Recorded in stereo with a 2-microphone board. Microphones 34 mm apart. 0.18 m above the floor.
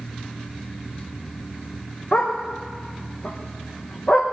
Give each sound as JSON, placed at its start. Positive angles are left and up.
{"t": 2.1, "sound": "a dog barking", "side_deg": 40, "distance_m": 5.0}